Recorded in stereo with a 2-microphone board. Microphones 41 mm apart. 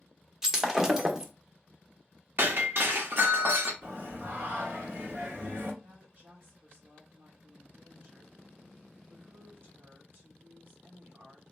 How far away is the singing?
About 1.4 m.